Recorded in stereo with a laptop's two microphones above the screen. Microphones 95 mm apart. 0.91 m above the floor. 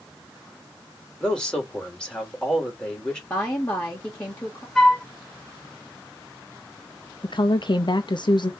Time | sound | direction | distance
1.2 | a man speaking | 10° left (ahead or behind) | 3 m
3.3 | a woman speaking | 15° left (ahead or behind) | 1.0 m
4.8 | a flute | 10° left (ahead or behind) | 3.5 m
7.2 | a woman speaking | 55° left (ahead or behind) | 0.6 m